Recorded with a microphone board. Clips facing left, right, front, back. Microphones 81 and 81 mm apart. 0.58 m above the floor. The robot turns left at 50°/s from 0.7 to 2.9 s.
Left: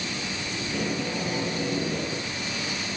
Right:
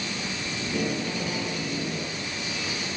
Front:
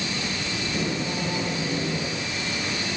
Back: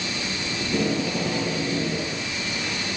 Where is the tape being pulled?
165° right, 4 m; by 2.3 s 110° left, 4 m.